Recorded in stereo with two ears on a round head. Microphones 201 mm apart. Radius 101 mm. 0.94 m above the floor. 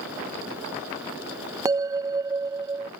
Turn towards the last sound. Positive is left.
turn(degrees=-15)  # may be behind; listen again after turning